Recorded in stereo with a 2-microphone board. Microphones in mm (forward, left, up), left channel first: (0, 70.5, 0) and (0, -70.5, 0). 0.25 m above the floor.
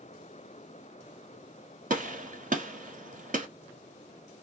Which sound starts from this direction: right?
A gunshot, at 1.9 s.